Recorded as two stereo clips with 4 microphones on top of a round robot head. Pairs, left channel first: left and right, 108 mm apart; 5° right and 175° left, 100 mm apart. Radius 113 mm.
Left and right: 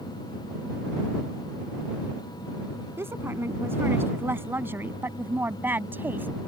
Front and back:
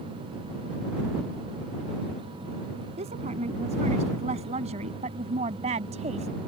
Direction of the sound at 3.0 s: 160° right.